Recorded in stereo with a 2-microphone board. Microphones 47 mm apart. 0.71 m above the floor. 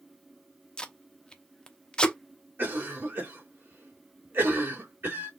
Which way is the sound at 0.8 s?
20° left (ahead or behind).